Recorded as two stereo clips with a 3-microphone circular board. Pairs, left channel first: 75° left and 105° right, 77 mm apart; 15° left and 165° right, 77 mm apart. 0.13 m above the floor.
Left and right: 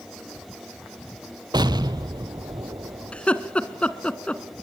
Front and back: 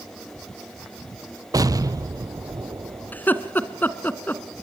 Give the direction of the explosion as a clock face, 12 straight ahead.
4 o'clock.